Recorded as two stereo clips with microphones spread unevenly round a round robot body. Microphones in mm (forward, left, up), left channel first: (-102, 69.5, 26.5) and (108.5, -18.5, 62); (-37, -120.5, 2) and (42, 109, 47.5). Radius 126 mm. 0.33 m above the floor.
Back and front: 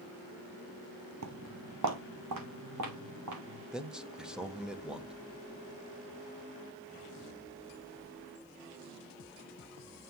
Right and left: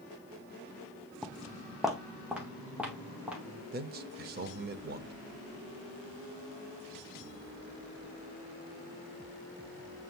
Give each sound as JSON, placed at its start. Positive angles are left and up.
{"t": 1.2, "sound": "footsteps", "azimuth_deg": -15, "distance_m": 0.6}
{"t": 3.7, "sound": "a man speaking", "azimuth_deg": 80, "distance_m": 0.9}